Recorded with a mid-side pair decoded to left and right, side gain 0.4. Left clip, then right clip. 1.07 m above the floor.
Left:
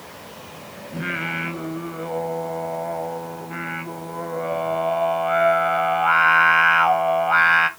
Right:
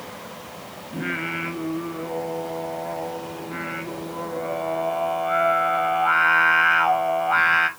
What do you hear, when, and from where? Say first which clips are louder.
0.9 s singing: left 1 dB; 25° left, 0.9 m